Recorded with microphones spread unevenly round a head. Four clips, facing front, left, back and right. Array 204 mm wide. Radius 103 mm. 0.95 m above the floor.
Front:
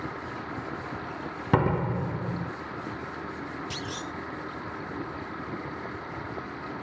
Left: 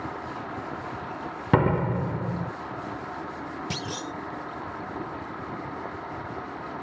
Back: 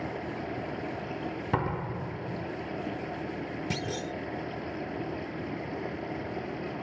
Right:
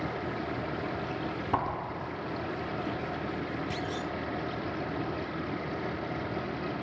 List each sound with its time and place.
0.0 s a machine running: 130° right
1.5 s a door slam: 65° left
3.7 s a clunk: 150° left